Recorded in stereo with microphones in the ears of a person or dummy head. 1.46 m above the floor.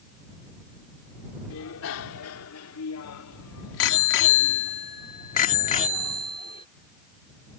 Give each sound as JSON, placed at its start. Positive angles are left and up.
{"t": 1.5, "sound": "a bicycle bell", "side_deg": 75}